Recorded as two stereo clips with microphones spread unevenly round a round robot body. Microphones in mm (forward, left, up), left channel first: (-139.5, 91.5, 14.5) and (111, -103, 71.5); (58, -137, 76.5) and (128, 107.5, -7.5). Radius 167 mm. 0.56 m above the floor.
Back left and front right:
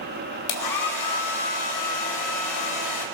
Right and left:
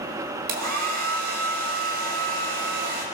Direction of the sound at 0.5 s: 125° left.